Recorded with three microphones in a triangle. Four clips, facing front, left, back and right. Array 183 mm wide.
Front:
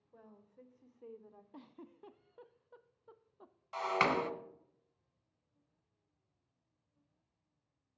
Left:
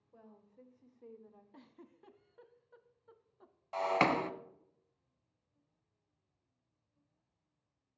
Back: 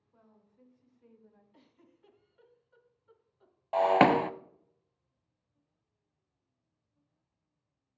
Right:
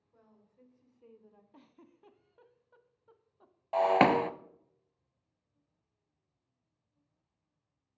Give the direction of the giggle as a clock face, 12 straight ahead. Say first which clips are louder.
Left 2 dB, front 9 dB; 12 o'clock.